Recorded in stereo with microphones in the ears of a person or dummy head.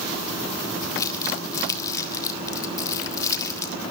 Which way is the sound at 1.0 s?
20° left (ahead or behind).